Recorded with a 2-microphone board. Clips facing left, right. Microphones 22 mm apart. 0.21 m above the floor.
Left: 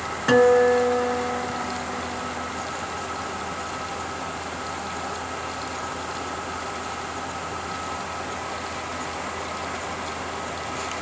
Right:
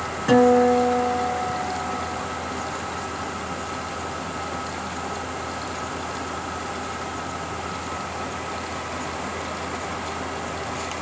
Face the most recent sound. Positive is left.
turn(degrees=25)  # may be behind; listen again after turning